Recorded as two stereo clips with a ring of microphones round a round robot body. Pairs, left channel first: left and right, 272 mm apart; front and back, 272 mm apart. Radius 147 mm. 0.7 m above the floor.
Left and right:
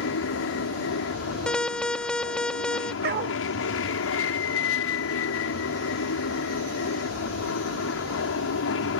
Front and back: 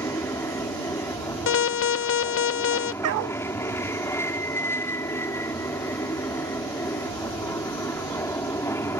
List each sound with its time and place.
0.0 s an aircraft: 80° left
1.5 s an alarm: 5° left
3.0 s a dog barking: 145° right